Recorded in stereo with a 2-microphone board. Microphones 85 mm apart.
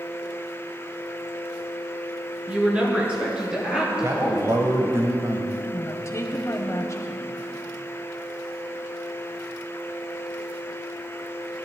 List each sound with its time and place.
2.5 s a woman speaking: 15° right (ahead or behind), 3.5 m; by 4.6 s 10° right (ahead or behind), 5.5 m
4.0 s a man speaking: 35° right (ahead or behind), 1.4 m
5.7 s a woman speaking: 35° left (ahead or behind), 1.6 m